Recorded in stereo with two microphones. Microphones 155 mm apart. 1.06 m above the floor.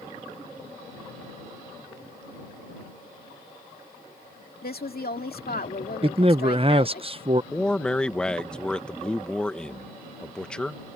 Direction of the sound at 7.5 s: 5° left (ahead or behind).